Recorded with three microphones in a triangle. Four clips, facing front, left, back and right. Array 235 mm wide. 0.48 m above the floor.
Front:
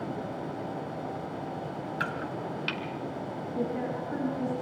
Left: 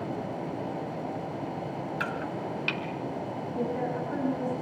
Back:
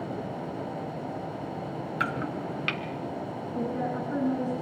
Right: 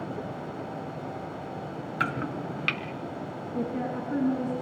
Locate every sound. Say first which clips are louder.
2.0 s chopping: right 5 dB, back 4 dB; 120° right, 1.7 m
3.5 s a woman speaking: even, back 1 dB; 110° right, 6 m